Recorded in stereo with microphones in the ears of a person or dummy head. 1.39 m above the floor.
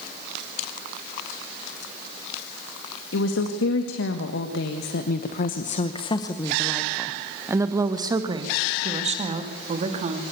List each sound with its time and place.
3.1 s a woman speaking: 85° left, 2.5 m; by 10.2 s 40° right (ahead or behind), 3 m